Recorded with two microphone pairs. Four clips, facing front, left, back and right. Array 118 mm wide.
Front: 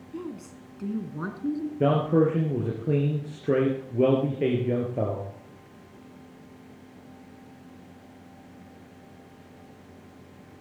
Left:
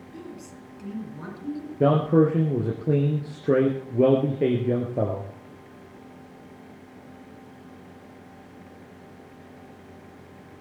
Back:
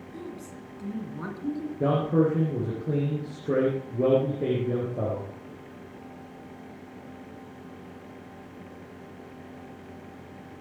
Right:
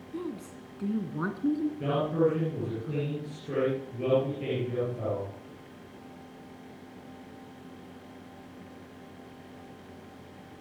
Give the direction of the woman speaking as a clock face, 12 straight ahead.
2 o'clock.